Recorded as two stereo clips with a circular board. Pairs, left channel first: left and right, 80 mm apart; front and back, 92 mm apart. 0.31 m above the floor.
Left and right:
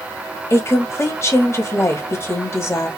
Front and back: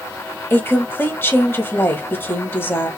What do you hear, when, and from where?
0.5 s a woman speaking: 55° left, 1.5 m